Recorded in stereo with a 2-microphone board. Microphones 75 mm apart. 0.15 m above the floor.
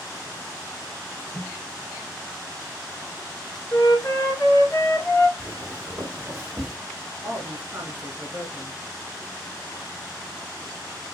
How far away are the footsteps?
About 2.5 m.